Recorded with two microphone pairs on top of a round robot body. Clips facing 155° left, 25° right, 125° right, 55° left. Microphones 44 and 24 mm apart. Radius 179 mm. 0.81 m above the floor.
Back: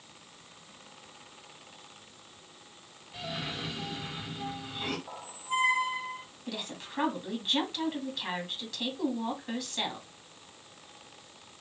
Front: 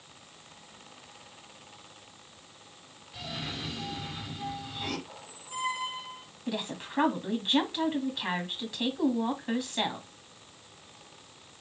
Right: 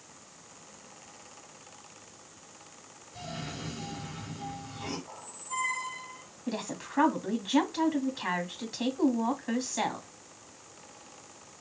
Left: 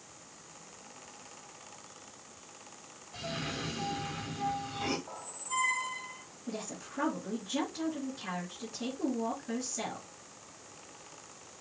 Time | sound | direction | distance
3.1 | a cough | 85° left | 2.5 m
5.1 | a squeak | 120° left | 1.7 m
6.5 | a woman speaking | 95° right | 2 m